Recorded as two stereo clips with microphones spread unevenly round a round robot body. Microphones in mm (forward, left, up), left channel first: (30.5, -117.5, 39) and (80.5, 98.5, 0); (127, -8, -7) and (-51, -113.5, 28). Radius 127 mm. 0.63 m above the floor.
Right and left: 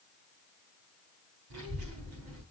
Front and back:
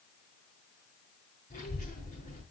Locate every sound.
1.5 s a child speaking: 95° left, 5 m